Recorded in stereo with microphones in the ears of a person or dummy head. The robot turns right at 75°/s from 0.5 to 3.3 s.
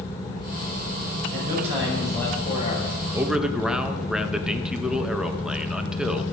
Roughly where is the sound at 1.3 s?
Ahead right.